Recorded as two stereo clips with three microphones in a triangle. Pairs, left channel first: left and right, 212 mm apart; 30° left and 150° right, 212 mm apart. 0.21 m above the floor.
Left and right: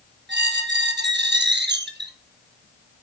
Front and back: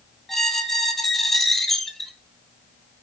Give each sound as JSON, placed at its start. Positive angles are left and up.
{"t": 0.3, "sound": "a squeak", "azimuth_deg": -60, "distance_m": 1.1}